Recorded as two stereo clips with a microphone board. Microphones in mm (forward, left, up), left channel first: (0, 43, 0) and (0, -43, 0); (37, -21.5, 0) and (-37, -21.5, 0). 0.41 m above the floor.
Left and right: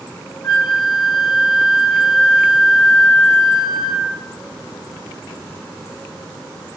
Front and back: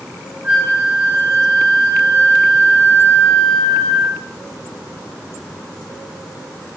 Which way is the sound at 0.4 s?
Straight behind.